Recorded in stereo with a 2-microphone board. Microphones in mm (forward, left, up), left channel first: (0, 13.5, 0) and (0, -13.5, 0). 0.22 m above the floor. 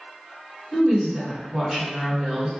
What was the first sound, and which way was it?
A woman speaking, 30° right (ahead or behind).